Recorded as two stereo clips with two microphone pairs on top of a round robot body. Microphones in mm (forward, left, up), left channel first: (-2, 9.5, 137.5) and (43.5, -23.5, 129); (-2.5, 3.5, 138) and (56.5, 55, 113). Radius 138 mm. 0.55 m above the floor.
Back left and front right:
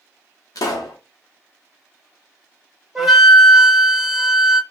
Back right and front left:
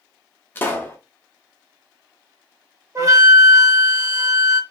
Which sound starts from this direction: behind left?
A pop, at 0.6 s.